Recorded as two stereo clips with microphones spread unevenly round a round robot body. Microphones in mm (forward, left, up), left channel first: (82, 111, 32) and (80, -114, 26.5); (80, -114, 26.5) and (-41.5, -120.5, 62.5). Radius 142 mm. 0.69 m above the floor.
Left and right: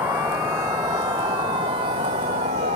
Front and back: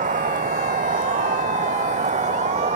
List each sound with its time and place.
0.0 s a vehicle: 175° right; by 2.8 s 160° right